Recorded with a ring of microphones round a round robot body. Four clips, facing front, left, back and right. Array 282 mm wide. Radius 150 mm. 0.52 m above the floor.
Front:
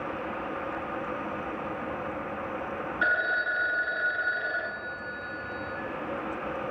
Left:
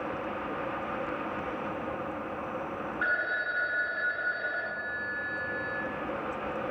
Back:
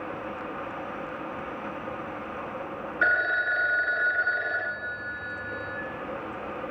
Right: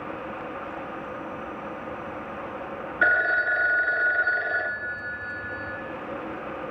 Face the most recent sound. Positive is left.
turn(degrees=-105)